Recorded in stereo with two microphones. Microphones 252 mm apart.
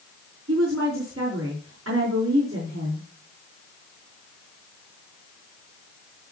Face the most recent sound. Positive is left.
turn(degrees=-65)  # may be behind; listen again after turning